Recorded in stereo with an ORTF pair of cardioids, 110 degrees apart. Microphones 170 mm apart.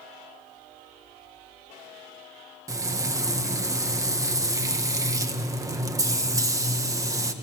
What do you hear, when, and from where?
2.7 s frying: 20° right, 1.6 m